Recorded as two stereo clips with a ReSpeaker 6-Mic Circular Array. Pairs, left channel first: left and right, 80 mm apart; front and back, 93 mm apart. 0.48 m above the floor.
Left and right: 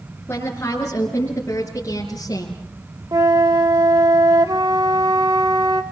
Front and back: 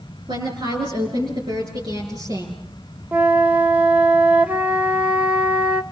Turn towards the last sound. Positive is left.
turn(degrees=-110)